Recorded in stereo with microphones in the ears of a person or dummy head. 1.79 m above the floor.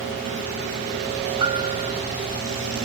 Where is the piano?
25° right (ahead or behind).